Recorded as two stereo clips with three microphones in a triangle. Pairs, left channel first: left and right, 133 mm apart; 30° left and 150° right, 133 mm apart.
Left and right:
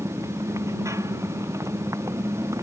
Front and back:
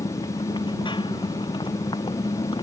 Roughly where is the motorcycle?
Ahead.